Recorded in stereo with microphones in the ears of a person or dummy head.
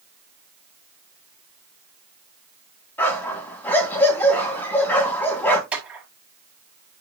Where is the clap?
5° right (ahead or behind), 6.5 m.